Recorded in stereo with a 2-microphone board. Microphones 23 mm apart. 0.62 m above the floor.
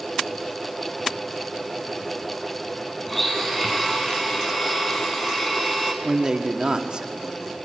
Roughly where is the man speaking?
Right.